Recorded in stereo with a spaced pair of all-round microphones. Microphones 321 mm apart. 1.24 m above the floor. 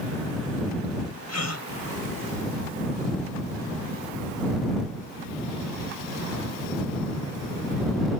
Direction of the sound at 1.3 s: 50° left (ahead or behind).